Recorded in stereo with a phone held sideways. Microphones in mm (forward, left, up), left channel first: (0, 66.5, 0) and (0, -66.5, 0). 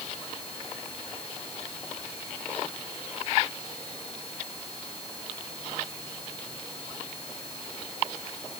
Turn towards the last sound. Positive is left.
No sound to turn to.